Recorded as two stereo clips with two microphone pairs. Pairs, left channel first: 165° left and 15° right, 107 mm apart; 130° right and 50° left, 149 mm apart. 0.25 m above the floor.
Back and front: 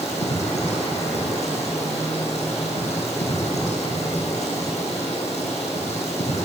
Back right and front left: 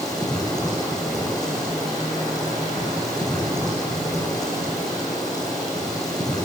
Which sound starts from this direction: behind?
Running water, at 0.0 s.